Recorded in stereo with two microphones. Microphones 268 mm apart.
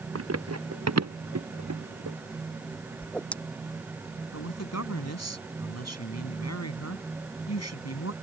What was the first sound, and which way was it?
Running footsteps, 60° right (ahead or behind).